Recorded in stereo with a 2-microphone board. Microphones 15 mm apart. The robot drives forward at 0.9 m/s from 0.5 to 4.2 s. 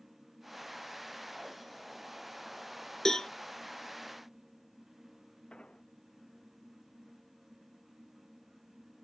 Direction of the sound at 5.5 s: 75° left (ahead or behind).